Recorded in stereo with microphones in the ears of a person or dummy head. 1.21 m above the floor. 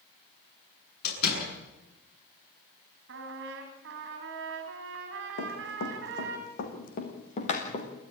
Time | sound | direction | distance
1.0 | a door slam | 65° left (ahead or behind) | 9.5 m
3.1 | a trumpet | 65° right (ahead or behind) | 3 m
5.4 | running footsteps | 60° left (ahead or behind) | 4 m